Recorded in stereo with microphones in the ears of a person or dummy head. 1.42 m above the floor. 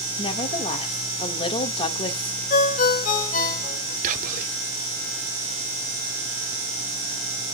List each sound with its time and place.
0.2 s a woman speaking: 30° left (ahead or behind), 1.6 m
2.5 s a ringtone: 45° left (ahead or behind), 3.5 m
4.0 s whispering: 45° right (ahead or behind), 1.1 m